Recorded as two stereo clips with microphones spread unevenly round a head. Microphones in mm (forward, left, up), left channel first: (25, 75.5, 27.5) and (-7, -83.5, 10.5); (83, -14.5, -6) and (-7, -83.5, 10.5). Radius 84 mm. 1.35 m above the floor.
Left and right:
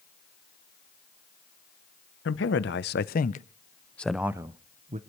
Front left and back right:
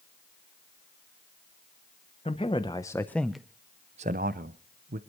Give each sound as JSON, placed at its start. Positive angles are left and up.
{"t": 2.2, "sound": "a man speaking", "azimuth_deg": 100, "distance_m": 1.1}